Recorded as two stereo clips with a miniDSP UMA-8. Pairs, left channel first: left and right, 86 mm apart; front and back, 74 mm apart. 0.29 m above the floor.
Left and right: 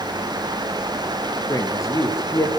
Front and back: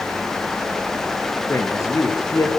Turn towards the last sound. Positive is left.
turn(degrees=45)